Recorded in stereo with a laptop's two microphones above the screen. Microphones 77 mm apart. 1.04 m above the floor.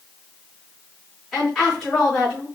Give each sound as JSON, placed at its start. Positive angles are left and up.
{"t": 1.3, "sound": "a woman speaking", "side_deg": 0, "distance_m": 3.5}